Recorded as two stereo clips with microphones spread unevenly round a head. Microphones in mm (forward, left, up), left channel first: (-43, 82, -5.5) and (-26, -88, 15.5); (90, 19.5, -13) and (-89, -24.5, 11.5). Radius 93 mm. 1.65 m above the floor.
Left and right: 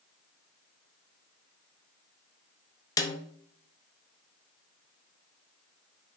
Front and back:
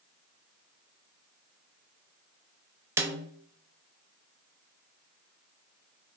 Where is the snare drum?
160° left, 0.5 m.